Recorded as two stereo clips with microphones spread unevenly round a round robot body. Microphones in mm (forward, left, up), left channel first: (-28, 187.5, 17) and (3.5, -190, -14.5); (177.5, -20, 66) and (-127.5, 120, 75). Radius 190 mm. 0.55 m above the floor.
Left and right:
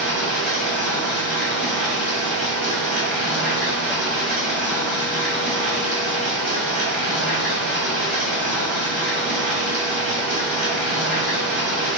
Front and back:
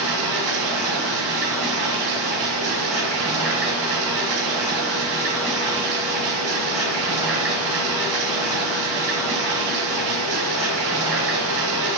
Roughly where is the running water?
Behind.